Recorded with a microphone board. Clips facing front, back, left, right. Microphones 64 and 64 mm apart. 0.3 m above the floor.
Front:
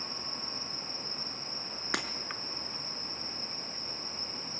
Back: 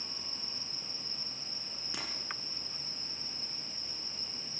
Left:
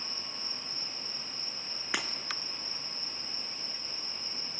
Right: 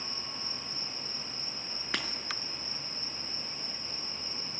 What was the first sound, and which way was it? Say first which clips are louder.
Breaking glass: front 9 dB, left 1 dB; 5° left.